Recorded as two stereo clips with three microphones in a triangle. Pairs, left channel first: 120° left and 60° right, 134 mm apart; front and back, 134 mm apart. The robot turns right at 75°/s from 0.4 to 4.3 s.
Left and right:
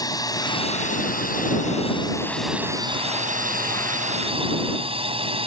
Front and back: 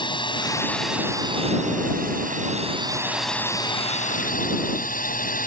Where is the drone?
55° left; by 5.5 s 10° right.